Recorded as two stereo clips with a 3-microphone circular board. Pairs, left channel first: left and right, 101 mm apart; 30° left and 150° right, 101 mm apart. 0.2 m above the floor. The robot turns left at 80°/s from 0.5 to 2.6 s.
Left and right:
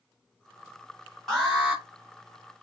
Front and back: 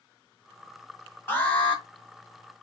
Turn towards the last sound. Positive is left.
turn(degrees=-100)